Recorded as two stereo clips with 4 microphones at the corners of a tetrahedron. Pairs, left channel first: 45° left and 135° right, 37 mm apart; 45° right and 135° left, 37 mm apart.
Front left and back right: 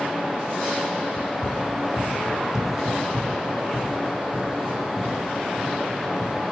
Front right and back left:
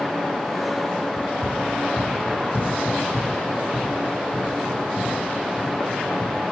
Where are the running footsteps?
85° left, 1.7 m; by 6.4 s 155° right, 5 m.